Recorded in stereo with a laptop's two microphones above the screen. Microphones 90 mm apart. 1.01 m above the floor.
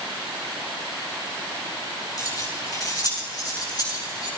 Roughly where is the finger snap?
I don't hear a finger snap.